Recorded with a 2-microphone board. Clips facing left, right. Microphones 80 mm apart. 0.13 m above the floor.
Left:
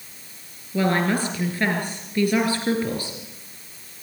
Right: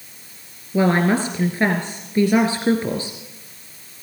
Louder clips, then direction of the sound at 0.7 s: Right 4 dB; 25° right (ahead or behind).